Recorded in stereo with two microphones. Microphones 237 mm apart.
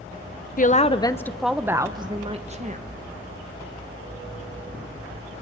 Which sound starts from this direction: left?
A woman speaking, at 0.6 s.